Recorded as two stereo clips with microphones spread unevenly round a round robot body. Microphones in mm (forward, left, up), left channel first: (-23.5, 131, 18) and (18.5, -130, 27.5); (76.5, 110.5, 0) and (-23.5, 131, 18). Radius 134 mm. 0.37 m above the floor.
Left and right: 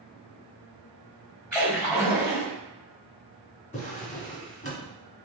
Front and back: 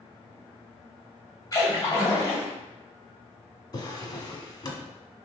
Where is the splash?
15° left, 1.8 m.